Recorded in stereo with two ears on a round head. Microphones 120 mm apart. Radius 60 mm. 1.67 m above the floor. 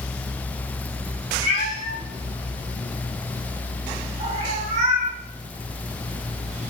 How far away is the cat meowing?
About 2 m.